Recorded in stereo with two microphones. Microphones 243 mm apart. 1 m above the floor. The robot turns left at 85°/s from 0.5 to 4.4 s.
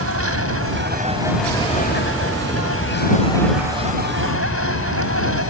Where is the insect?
105° right; by 5.5 s 75° right.